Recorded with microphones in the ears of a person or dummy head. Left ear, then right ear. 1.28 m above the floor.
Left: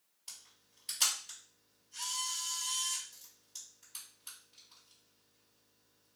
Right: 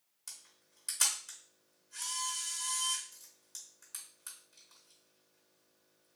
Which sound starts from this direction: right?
A camera shutter, at 0.3 s.